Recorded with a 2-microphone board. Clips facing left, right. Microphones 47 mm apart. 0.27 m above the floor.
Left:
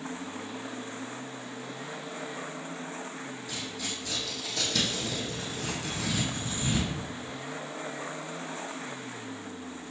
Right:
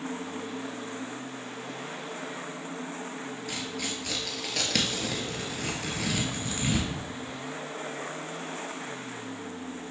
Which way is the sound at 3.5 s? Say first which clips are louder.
Right 3 dB; 85° right.